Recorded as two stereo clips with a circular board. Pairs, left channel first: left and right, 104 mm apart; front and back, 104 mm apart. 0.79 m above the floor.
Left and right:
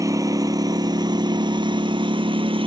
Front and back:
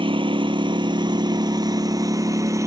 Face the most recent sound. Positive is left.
turn(degrees=-120)